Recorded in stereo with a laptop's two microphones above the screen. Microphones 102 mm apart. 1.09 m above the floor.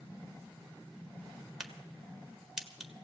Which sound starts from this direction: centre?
A crack, at 1.6 s.